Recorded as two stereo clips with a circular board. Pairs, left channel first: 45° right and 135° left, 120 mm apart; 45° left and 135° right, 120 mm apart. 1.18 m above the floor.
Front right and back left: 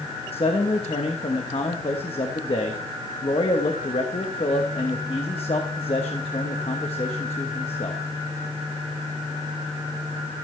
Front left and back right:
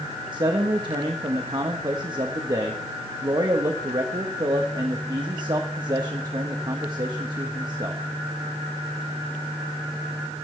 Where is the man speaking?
80° right, 1.2 m.